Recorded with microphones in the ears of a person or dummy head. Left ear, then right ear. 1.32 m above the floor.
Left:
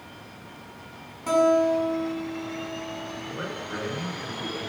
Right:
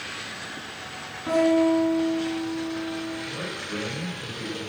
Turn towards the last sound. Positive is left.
turn(degrees=75)  # may be behind; listen again after turning